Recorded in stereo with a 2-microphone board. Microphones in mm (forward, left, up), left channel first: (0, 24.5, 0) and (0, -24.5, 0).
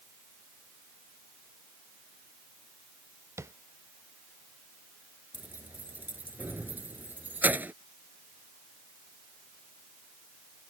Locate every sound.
3.4 s tapping: 75° right (ahead or behind)
5.3 s keys jangling: 40° right (ahead or behind)